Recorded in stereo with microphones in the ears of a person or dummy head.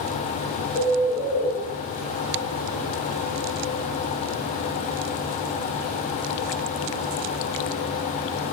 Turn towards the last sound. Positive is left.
turn(degrees=30)  # may be behind; listen again after turning